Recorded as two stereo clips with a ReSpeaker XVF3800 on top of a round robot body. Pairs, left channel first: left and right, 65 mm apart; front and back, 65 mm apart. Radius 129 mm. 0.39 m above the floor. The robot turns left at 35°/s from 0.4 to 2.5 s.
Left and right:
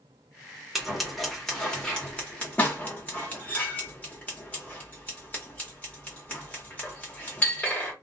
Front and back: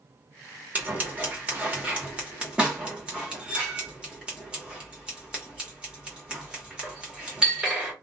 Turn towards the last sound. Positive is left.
turn(degrees=125)